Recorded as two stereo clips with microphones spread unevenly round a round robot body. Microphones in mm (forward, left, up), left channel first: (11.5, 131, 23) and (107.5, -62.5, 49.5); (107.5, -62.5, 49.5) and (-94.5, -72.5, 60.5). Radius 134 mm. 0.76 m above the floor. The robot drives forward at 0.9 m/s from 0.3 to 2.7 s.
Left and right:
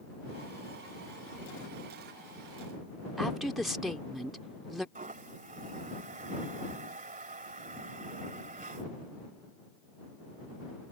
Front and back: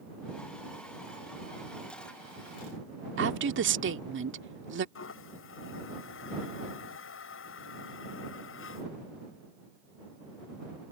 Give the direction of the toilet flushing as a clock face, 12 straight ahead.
12 o'clock.